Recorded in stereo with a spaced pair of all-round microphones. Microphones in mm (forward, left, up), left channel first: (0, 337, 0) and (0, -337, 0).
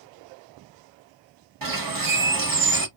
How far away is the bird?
About 0.8 m.